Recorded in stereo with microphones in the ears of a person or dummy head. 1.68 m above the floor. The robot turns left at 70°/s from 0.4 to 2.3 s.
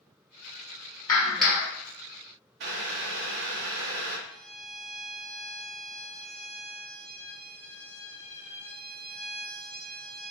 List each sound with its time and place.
1.1 s a clap: 20° left, 1.1 m; by 1.7 s 20° right, 1.1 m
2.6 s boiling: 65° right (ahead or behind), 0.6 m
4.3 s a violin: 5° right (ahead or behind), 2.0 m